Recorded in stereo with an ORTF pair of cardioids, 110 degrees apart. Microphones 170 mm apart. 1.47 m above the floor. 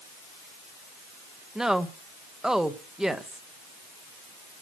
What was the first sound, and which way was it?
A woman speaking, 5° right.